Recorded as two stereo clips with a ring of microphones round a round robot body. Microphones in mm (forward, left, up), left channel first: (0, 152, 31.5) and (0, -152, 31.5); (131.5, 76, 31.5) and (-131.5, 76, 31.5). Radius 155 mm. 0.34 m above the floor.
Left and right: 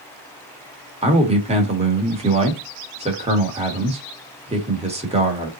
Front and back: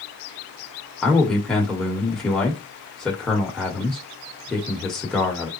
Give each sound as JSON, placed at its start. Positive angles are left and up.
{"t": 1.0, "sound": "a man speaking", "azimuth_deg": -80, "distance_m": 1.1}